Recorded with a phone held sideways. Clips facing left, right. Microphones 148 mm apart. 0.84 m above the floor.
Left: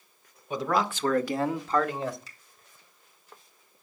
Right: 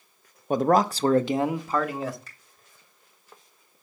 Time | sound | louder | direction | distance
0.5 | a man speaking | right 7 dB | 50° right (ahead or behind) | 0.6 m
2.3 | a finger snap | right 2 dB | 60° right (ahead or behind) | 4.5 m